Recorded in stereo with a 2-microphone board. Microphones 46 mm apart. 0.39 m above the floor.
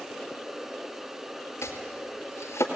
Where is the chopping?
90° left, 2 m.